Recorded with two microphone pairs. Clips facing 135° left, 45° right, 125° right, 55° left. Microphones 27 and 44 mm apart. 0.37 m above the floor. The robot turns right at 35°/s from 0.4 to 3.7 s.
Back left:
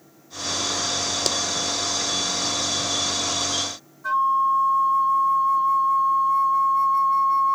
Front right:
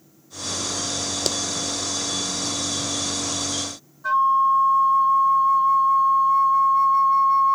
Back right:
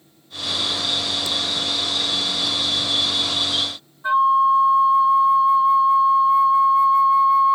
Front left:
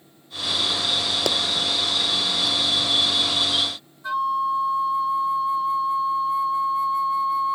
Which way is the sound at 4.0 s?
125° right.